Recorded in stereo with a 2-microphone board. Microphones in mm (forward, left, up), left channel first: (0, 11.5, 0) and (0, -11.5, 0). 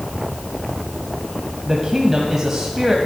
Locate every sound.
1.6 s a man speaking: 20° right (ahead or behind), 1.7 m